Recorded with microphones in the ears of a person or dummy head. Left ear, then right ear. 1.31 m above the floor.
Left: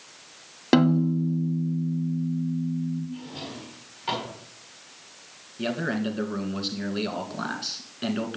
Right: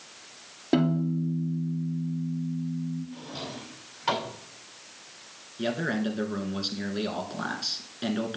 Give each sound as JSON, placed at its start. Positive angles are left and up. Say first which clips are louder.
{"t": 0.7, "sound": "a piano", "louder": "left 5 dB", "side_deg": 45, "distance_m": 1.4}
{"t": 3.1, "sound": "a drawer", "louder": "even", "side_deg": -20, "distance_m": 4.0}
{"t": 5.6, "sound": "a man speaking", "louder": "left 1 dB", "side_deg": 5, "distance_m": 1.6}